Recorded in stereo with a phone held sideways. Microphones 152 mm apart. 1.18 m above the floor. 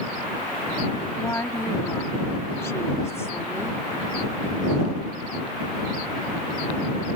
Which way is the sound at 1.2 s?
20° left (ahead or behind).